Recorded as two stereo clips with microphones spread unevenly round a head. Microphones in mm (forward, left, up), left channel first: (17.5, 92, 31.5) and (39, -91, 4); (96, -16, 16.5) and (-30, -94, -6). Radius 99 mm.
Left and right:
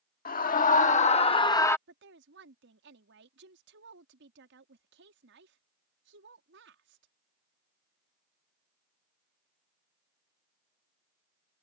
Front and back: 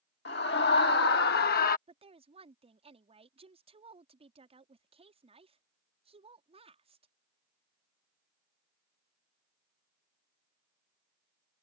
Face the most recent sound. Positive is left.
turn(degrees=-105)